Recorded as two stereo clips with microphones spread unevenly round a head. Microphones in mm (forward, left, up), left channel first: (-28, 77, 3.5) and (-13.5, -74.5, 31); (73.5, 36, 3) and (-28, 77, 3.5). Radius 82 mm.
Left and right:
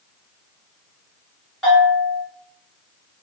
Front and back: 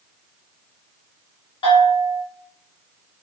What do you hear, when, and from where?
1.6 s a bell: 15° left, 1.8 m